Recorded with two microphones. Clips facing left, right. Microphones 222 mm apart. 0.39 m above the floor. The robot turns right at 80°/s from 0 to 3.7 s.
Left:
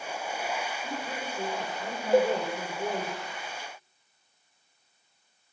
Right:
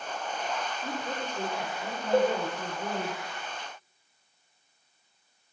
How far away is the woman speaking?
About 1.3 m.